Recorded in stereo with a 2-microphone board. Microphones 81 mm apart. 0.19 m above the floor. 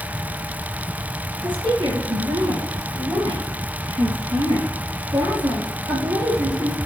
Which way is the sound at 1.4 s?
65° right (ahead or behind).